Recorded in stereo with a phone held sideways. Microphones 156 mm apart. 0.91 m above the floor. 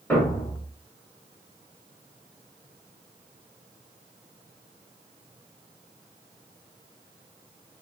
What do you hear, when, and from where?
0.1 s a thud: 10° left (ahead or behind), 1.3 m